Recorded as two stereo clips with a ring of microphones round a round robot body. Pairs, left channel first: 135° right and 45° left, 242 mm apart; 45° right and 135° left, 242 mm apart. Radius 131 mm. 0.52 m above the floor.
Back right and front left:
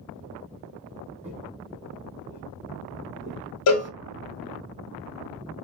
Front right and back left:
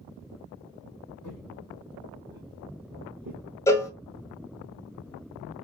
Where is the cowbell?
125° right, 0.5 m.